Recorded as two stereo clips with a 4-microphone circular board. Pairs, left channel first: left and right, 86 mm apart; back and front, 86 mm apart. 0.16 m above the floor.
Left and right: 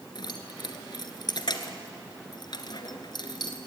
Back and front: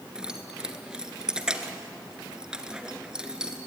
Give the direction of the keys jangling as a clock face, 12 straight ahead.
9 o'clock.